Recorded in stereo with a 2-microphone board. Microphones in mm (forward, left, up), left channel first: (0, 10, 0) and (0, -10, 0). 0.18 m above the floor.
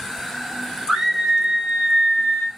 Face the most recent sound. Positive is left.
turn(degrees=-25)  # may be behind; listen again after turning